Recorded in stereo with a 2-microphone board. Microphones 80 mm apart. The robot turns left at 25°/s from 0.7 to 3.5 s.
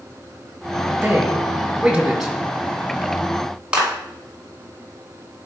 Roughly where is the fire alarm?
No fire alarm in this recording.